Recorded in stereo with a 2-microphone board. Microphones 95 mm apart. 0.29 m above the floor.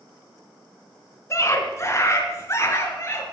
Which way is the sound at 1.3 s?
35° left (ahead or behind).